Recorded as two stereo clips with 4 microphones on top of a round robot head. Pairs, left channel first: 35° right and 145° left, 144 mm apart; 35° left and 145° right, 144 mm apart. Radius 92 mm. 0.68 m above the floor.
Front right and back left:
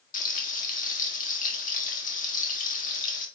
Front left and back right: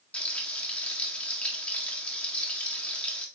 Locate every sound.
0.1 s frying: 45° right, 1.7 m